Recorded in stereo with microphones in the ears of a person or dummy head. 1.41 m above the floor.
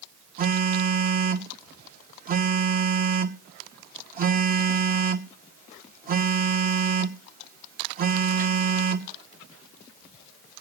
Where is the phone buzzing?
40° right (ahead or behind), 0.9 m.